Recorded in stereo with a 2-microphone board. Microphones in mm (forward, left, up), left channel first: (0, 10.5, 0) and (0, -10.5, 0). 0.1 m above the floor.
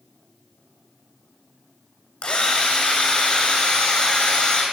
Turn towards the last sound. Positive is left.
turn(degrees=65)  # may be behind; listen again after turning